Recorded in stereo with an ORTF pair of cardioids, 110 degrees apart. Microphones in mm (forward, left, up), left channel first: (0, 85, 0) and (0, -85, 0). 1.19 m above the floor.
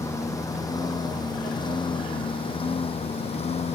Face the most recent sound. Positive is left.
turn(degrees=40)